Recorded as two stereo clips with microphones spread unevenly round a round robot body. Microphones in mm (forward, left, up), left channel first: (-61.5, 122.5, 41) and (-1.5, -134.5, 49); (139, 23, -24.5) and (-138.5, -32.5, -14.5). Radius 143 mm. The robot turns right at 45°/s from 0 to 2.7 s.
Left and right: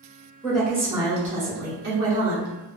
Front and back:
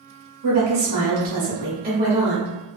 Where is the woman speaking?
175° right, 1.4 m; by 2.5 s 80° right, 1.4 m.